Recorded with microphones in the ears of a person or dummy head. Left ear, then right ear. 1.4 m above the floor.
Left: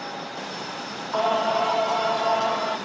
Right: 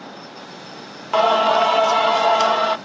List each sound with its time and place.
1.1 s singing: 65° right (ahead or behind), 0.7 m